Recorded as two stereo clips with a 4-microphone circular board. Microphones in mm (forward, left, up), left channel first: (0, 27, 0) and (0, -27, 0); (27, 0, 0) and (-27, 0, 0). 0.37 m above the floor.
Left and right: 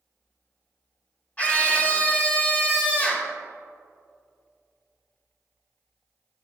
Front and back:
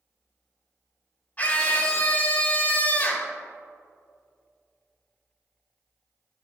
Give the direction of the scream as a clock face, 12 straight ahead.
11 o'clock.